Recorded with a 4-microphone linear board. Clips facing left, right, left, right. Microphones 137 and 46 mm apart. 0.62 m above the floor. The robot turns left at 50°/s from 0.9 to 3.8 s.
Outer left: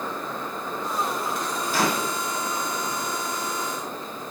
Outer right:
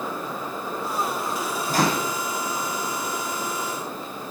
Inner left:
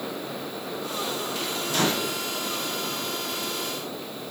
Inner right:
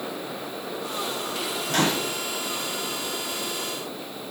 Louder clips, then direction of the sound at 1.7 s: Outer right 2 dB, inner right 1 dB; 40° right (ahead or behind).